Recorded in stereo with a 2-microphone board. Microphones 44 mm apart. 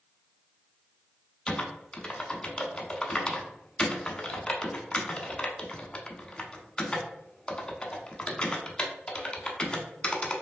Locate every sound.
1.5 s typing on a keyboard: 20° left (ahead or behind), 0.7 m